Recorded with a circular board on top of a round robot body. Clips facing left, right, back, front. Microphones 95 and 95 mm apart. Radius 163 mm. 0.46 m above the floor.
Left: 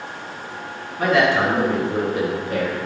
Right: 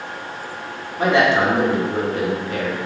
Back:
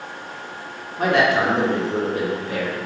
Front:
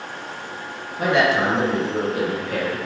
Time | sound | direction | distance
1.0 | a man speaking | 150° right | 1.7 m